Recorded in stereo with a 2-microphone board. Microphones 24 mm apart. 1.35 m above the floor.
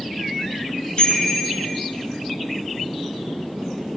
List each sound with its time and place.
1.0 s a bicycle bell: 55° left (ahead or behind), 9.5 m